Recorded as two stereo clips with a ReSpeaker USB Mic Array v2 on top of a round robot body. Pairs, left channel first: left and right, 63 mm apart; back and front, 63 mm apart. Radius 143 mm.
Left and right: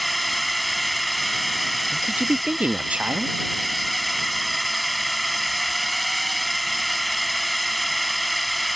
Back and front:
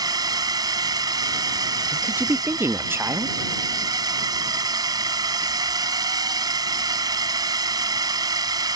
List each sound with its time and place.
0.0 s a drone: straight ahead
1.9 s a woman speaking: 30° right